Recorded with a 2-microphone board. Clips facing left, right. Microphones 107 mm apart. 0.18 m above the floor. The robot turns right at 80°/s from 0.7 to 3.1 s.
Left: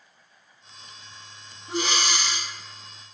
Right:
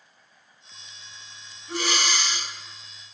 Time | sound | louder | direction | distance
1.7 | breathing | left 1 dB | 25° left (ahead or behind) | 1.7 m